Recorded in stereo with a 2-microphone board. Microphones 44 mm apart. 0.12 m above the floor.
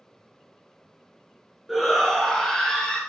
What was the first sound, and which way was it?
A shout, centre (ahead or behind).